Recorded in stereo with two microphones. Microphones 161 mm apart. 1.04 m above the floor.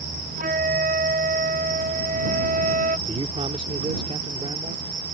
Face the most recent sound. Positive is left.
turn(degrees=-40)  # may be behind; listen again after turning